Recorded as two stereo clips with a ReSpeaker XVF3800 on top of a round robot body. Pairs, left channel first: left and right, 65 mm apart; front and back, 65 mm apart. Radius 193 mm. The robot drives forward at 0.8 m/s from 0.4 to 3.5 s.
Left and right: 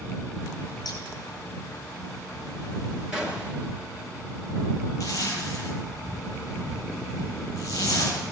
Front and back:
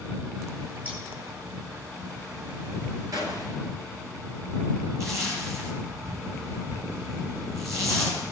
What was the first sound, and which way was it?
Scissors, 110° left.